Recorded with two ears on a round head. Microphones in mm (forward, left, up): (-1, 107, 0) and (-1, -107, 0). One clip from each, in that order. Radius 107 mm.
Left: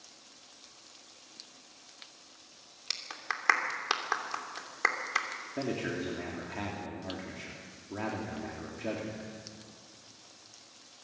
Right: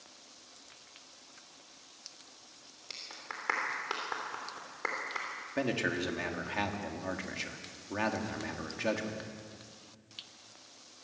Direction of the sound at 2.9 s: 55° left (ahead or behind).